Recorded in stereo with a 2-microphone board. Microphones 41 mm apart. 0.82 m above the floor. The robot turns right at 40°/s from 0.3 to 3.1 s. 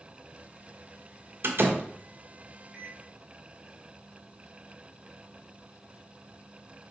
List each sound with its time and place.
1.4 s a door slam: 70° right (ahead or behind), 1.3 m; by 1.8 s 55° right (ahead or behind), 1.3 m
2.7 s a microwave: 10° right (ahead or behind), 1.7 m; by 3.0 s centre (ahead or behind), 1.7 m